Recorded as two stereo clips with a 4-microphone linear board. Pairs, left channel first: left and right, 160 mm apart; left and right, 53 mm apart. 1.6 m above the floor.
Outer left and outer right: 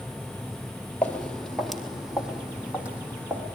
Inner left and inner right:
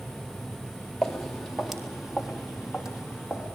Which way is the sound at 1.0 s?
10° left (ahead or behind).